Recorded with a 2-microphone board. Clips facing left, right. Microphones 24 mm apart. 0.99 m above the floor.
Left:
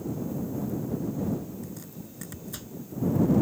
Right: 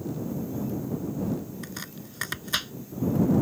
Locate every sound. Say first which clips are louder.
1.6 s chopping: right 2 dB; 75° right (ahead or behind)